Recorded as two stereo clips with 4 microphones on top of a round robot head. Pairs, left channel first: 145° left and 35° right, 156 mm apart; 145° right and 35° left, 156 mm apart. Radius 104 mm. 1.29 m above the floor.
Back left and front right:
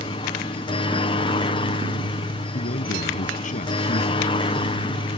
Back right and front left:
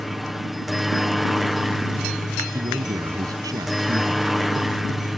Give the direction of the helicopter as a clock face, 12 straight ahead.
8 o'clock.